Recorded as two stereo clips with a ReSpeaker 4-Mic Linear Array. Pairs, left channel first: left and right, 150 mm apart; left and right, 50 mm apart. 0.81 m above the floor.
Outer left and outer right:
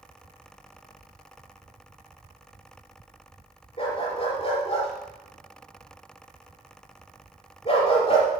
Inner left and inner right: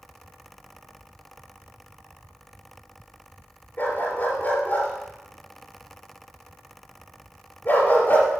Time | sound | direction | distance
3.8 | a dog barking | 40° left (ahead or behind) | 4 m